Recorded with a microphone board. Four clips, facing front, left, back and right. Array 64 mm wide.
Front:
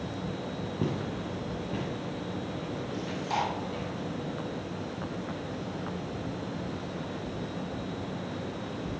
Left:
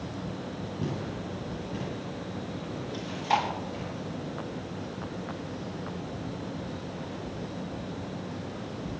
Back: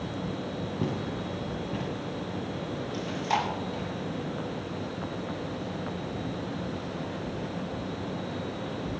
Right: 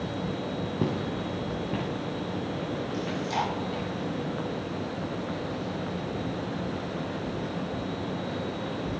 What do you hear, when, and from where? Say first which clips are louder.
0.8 s footsteps: right 4 dB, even; 85° right, 2.5 m
2.9 s chewing: left 3 dB, back 3 dB; 120° left, 6.5 m